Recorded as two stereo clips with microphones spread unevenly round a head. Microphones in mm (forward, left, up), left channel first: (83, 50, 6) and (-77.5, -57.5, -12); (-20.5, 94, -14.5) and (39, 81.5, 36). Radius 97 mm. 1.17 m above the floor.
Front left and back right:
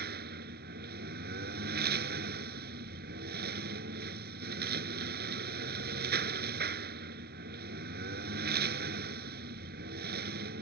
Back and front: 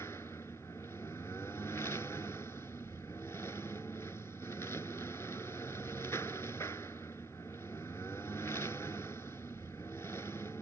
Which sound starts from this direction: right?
A lawn mower, at 0.0 s.